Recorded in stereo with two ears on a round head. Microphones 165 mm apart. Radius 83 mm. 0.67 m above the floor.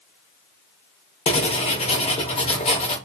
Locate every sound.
1.3 s writing: 35° left (ahead or behind), 0.6 m